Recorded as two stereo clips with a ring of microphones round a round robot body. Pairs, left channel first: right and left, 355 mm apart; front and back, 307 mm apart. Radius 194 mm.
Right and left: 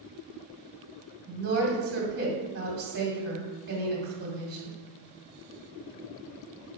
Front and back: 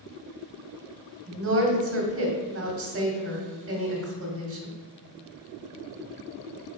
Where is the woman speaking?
150° left, 1.9 m.